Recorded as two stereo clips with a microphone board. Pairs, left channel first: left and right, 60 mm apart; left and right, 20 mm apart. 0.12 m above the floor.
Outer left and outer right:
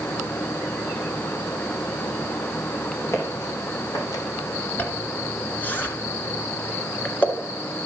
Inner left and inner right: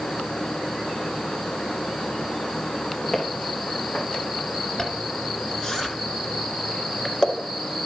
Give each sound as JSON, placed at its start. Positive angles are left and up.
{"t": 3.1, "sound": "footsteps", "side_deg": 50, "distance_m": 4.0}
{"t": 4.8, "sound": "a zipper", "side_deg": 30, "distance_m": 1.4}